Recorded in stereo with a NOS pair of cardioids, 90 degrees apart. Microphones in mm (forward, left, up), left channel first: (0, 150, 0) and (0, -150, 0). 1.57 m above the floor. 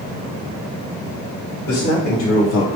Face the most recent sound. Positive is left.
turn(degrees=50)